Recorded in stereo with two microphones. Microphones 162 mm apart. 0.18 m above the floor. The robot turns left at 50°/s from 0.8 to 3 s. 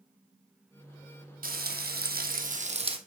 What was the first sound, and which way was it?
Frying, 70° right.